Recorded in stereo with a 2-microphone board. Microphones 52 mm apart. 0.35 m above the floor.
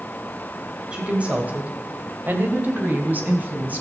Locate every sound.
0.9 s a woman speaking: 25° right (ahead or behind), 2 m; by 3.8 s 35° right (ahead or behind), 3.5 m